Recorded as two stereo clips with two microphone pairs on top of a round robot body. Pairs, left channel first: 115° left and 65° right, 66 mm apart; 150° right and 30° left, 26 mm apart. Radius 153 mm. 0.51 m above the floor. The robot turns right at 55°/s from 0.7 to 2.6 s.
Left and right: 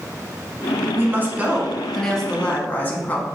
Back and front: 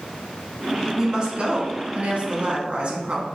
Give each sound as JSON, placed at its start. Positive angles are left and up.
{"t": 0.9, "sound": "a woman speaking", "azimuth_deg": -40, "distance_m": 1.2}